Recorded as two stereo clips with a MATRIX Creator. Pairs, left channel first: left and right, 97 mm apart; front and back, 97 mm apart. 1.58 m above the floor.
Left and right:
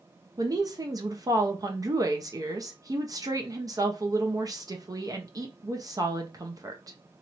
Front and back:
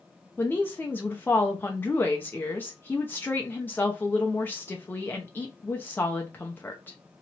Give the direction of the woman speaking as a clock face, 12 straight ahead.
2 o'clock.